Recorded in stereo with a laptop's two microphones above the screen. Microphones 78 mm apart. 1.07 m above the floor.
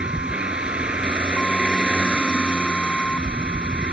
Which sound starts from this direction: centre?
A vehicle, at 0.0 s.